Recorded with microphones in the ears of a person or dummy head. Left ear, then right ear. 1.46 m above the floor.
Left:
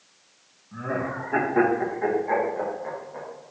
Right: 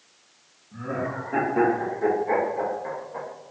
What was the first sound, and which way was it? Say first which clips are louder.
Laughter: left 1 dB; 45° left (ahead or behind).